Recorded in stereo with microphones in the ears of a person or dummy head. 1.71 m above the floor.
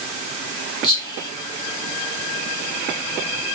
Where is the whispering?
20° left (ahead or behind), 0.8 m.